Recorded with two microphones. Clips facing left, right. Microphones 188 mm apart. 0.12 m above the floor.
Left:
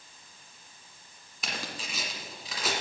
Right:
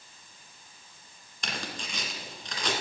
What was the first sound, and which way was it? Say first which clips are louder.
Tearing paper: right 1 dB; 5° left (ahead or behind).